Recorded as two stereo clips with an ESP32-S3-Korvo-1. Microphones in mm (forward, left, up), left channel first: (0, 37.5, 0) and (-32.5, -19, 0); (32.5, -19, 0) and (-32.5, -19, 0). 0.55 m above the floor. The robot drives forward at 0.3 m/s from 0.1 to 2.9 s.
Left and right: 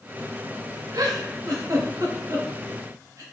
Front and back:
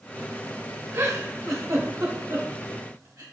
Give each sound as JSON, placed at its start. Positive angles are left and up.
{"t": 0.9, "sound": "a giggle", "azimuth_deg": -130, "distance_m": 0.6}